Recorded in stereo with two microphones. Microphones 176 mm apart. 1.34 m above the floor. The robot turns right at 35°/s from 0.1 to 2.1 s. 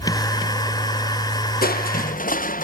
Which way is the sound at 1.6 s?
60° left (ahead or behind).